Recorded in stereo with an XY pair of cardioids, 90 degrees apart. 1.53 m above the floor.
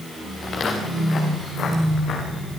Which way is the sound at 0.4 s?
50° left.